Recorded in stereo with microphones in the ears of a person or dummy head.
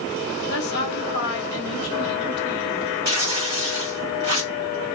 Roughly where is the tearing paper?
Right.